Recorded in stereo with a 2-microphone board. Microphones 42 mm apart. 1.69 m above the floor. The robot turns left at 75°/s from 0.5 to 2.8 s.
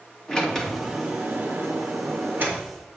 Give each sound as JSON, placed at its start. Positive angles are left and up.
{"t": 0.3, "sound": "a sliding door", "azimuth_deg": 20, "distance_m": 2.0}